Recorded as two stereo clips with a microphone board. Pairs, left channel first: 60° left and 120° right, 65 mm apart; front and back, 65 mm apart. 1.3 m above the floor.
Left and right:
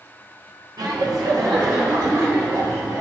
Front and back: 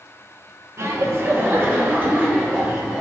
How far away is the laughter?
About 1.0 m.